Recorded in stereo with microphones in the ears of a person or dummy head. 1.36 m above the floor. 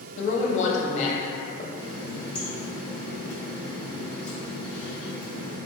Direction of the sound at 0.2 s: 45° left (ahead or behind).